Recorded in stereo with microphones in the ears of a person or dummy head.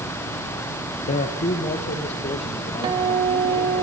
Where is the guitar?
25° right (ahead or behind), 1.6 m.